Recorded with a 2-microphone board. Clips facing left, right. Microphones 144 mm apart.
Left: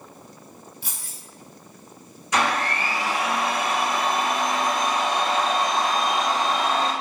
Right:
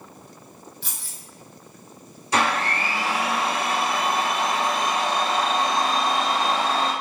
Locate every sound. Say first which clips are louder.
0.8 s keys jangling: even; 5° left (ahead or behind), 1.8 m
2.3 s a blender: even; 35° right (ahead or behind), 1.8 m